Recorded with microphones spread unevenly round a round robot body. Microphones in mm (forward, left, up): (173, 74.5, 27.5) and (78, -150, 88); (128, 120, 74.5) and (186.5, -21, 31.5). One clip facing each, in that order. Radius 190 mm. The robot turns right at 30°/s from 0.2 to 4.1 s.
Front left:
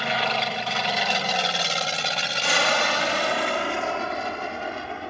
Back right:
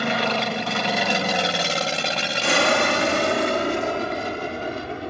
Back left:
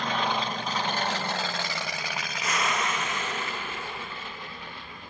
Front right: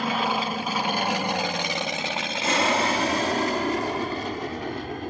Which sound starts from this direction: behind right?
An aircraft, at 0.0 s.